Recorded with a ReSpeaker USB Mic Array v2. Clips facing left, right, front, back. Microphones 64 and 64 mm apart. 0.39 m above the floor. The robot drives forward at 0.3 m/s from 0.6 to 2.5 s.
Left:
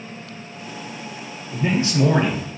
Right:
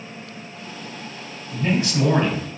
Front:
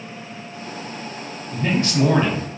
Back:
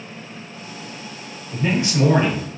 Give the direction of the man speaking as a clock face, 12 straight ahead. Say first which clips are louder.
Left 1 dB, even; 8 o'clock.